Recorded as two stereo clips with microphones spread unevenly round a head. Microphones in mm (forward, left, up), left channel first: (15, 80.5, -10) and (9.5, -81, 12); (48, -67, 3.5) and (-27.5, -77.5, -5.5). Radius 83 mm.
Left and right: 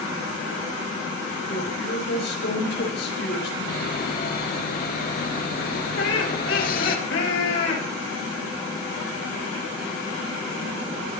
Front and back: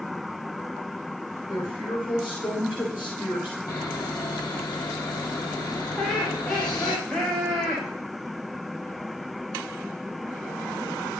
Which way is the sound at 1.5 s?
70° left.